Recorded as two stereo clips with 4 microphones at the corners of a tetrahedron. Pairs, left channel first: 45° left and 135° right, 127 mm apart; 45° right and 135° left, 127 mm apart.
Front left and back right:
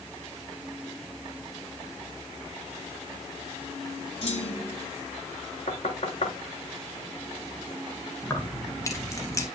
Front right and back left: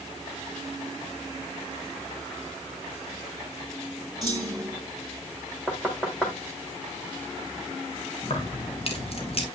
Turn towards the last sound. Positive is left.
turn(degrees=-15)